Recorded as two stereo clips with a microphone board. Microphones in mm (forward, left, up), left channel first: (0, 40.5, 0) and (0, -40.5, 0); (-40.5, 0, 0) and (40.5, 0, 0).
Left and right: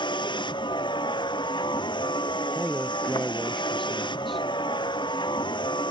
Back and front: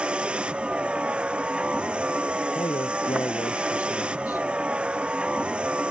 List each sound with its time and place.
0.0 s a vehicle: 80° left
2.5 s a man speaking: straight behind